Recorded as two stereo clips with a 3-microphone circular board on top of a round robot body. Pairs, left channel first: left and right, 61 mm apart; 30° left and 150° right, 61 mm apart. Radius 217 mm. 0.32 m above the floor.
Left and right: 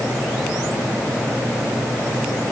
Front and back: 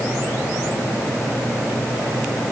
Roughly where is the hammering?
I don't hear hammering.